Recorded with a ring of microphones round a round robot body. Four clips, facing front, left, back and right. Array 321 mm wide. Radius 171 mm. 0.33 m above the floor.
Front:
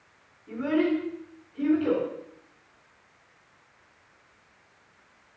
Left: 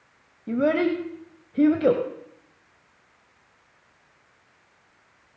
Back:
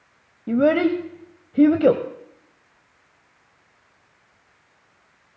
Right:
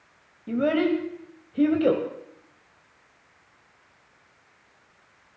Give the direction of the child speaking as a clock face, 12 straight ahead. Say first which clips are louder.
Left 1 dB, back 7 dB; 6 o'clock.